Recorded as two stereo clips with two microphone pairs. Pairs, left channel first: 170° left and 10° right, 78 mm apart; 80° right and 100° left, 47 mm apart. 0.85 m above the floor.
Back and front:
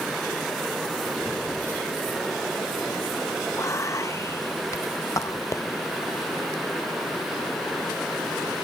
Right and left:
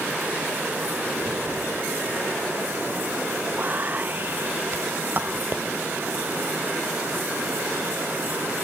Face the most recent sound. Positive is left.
turn(degrees=140)